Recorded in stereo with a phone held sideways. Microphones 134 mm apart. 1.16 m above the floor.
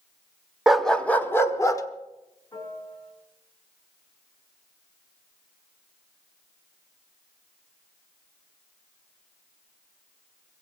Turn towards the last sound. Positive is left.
turn(degrees=25)  # may be behind; listen again after turning